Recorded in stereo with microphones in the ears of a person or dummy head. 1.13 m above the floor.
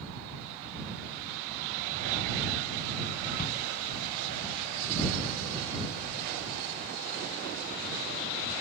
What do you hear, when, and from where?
3.4 s a shout: 50° left (ahead or behind)